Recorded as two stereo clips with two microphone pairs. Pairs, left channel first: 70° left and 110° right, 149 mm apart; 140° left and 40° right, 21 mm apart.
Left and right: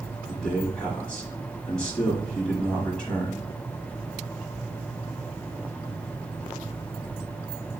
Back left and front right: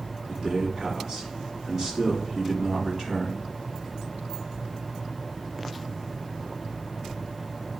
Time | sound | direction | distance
0.3 | a man speaking | 5° right | 1.1 m